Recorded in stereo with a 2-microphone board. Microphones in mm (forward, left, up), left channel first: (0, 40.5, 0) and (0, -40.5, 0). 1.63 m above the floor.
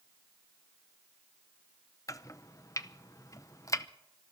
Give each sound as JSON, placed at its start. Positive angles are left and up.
{"t": 2.1, "sound": "chopping", "side_deg": 45, "distance_m": 0.7}